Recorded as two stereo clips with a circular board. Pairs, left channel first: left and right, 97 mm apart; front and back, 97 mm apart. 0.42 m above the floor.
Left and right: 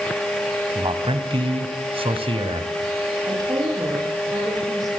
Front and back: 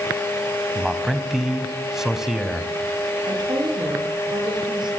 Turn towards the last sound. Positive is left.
turn(degrees=-140)